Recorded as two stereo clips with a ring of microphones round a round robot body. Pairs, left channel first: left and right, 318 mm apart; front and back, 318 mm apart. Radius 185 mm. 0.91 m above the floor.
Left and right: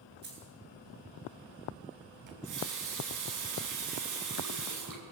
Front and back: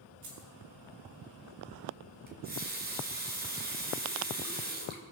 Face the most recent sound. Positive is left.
turn(degrees=-120)